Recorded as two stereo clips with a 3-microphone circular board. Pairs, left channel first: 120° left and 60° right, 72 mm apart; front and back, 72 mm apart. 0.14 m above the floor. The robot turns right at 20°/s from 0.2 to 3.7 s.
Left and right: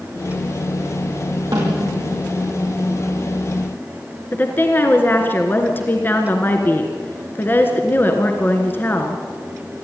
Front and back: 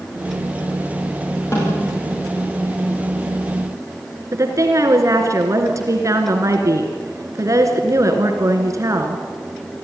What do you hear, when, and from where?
1.5 s a snare drum: 45° right, 7 m; by 2.2 s 30° right, 7 m
4.3 s a woman speaking: 170° left, 2 m